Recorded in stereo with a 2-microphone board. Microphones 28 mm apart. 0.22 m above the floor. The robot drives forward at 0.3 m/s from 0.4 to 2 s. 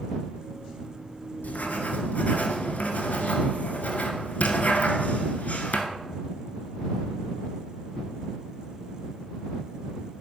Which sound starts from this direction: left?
Writing, at 1.4 s.